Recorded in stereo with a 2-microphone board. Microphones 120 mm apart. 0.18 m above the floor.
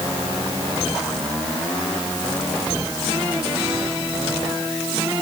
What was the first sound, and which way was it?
Only background noise.